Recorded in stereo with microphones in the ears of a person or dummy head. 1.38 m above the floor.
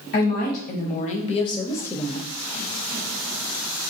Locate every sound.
0.1 s a woman speaking: 50° left (ahead or behind), 1.3 m; by 2.3 s centre (ahead or behind), 0.6 m